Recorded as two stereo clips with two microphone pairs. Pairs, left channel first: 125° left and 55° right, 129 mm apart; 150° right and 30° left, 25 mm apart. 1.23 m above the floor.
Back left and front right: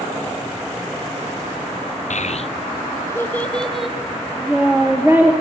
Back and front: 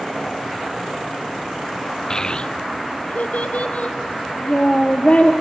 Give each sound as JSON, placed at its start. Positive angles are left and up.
{"t": 2.1, "sound": "a child speaking", "azimuth_deg": 140, "distance_m": 0.6}